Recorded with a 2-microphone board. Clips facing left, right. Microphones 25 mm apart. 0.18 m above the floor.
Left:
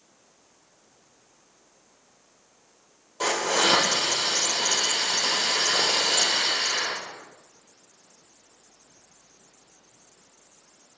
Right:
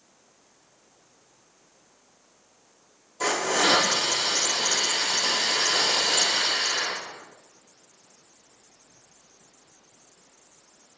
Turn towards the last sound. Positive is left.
turn(degrees=35)  # may be behind; listen again after turning